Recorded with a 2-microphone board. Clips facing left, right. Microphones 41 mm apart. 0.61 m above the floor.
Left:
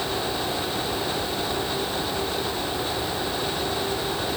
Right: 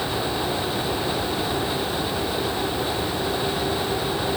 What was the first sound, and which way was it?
Only background noise.